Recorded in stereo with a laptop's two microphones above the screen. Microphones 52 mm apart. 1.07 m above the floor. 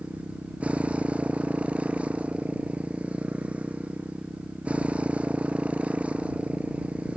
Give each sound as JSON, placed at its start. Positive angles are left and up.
{"t": 0.0, "sound": "a motorcycle", "side_deg": -25}